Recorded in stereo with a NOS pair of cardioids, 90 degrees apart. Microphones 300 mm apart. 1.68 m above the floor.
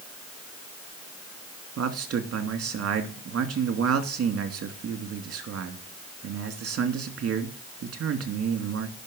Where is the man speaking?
50° right, 2.5 m.